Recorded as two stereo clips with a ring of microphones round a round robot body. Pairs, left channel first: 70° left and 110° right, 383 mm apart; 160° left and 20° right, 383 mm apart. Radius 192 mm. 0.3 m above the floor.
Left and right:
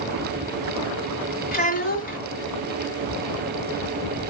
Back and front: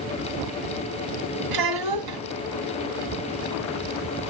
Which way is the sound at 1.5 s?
Straight ahead.